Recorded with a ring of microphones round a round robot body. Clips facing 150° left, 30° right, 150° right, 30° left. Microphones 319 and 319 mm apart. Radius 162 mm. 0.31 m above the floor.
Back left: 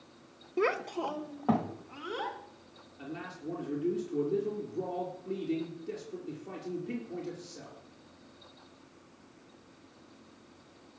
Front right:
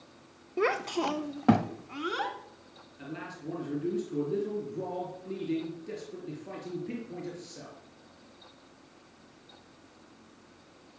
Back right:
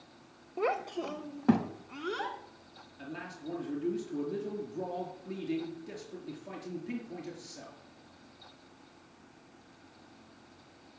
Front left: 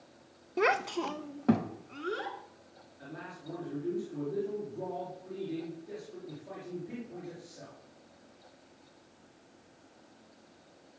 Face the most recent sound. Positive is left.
turn(degrees=-110)